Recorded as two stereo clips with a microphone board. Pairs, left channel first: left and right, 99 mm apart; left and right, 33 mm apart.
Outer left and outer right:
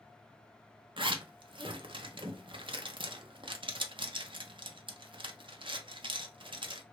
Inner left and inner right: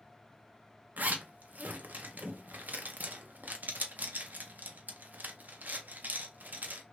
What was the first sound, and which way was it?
A zipper, 55° right (ahead or behind).